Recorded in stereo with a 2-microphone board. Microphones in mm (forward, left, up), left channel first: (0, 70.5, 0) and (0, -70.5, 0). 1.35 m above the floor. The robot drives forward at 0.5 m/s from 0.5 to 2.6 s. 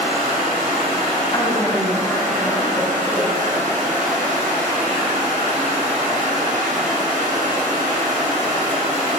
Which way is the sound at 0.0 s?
40° right (ahead or behind).